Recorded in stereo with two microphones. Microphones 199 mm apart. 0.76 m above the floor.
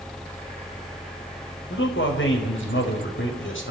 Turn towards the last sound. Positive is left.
turn(degrees=75)  # may be behind; listen again after turning